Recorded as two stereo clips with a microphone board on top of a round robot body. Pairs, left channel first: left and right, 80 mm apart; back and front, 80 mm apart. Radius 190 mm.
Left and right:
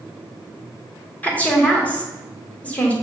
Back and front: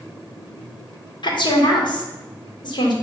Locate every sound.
1.2 s a woman speaking: 165° left, 2 m